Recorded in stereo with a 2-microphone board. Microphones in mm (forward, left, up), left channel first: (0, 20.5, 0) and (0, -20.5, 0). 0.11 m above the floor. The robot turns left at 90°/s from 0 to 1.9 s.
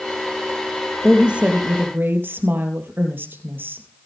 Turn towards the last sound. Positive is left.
turn(degrees=-80)